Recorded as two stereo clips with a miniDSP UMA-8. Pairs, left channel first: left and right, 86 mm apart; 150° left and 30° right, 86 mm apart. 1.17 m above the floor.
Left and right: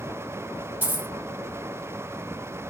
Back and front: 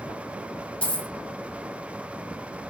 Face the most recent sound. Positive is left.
turn(degrees=-145)